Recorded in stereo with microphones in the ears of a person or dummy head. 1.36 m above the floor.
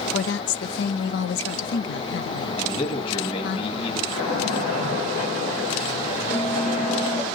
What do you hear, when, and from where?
0.1 s a woman speaking: 60° left (ahead or behind), 0.7 m
2.6 s a man speaking: 30° left (ahead or behind), 1.9 m
4.1 s a splash: 45° left (ahead or behind), 6 m
6.3 s a bell: 10° left (ahead or behind), 0.6 m